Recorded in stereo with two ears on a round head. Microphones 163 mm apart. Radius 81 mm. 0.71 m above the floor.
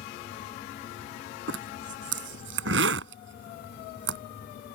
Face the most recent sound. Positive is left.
turn(degrees=-75)  # may be behind; listen again after turning